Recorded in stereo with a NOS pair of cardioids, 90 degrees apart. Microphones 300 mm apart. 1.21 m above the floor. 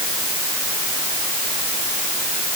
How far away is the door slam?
I don't hear a door slam.